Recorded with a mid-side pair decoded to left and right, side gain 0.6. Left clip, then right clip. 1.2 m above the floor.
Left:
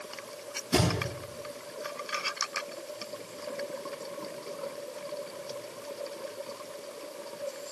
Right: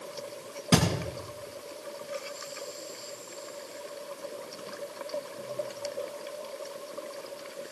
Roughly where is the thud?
Ahead right.